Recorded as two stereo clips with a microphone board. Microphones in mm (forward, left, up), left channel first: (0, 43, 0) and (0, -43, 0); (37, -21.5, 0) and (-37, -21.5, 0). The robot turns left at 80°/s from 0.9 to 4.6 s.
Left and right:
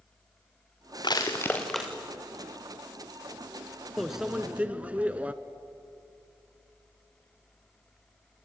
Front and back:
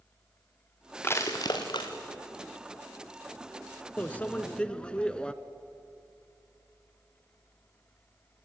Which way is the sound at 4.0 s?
Straight ahead.